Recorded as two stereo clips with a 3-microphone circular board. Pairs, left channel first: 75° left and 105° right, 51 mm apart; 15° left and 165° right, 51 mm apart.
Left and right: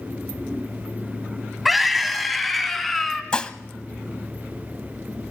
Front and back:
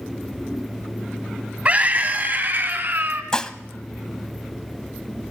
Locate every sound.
1.6 s a scream: 170° left, 1.2 m; by 3.2 s 160° left, 1.8 m
3.3 s dishes clattering: 55° left, 0.8 m